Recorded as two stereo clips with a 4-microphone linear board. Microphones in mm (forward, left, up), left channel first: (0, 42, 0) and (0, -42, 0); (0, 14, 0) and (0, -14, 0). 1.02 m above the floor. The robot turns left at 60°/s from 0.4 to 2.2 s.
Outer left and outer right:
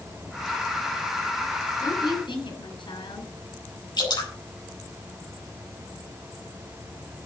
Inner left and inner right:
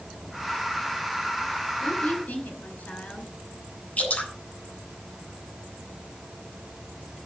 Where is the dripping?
55° left (ahead or behind), 6.5 m.